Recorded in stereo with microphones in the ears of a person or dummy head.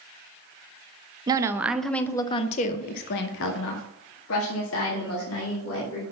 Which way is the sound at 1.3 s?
25° right (ahead or behind).